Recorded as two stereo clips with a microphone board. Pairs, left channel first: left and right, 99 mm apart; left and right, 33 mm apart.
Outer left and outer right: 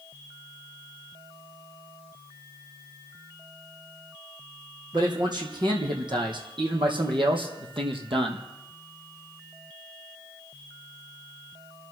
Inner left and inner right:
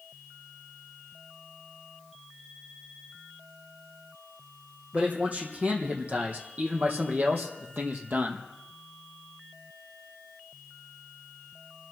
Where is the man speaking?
45° right (ahead or behind), 4.5 m; by 8.5 s 65° right (ahead or behind), 2.5 m.